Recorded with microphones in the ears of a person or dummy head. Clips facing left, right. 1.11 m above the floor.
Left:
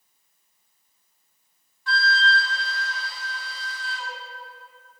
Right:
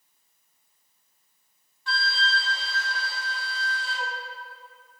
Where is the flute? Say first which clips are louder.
Left 5 dB; 30° right (ahead or behind), 1.1 m.